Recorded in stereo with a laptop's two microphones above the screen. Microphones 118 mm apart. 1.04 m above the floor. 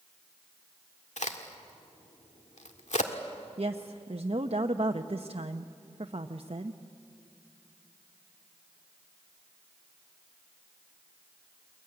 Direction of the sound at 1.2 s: 85° left.